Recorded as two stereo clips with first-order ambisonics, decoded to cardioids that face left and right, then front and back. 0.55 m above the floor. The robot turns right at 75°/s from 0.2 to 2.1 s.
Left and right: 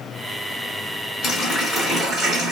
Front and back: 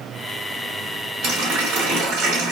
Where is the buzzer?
No buzzer in this recording.